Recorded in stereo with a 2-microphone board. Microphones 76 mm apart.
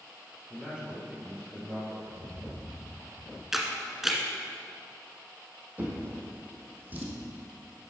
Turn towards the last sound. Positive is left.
turn(degrees=-25)  # may be behind; listen again after turning